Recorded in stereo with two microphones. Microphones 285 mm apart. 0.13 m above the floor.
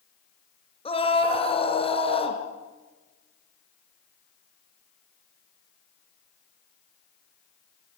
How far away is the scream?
About 2.5 m.